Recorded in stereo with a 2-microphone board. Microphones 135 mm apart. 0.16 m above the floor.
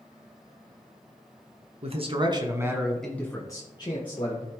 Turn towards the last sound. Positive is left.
turn(degrees=40)  # may be behind; listen again after turning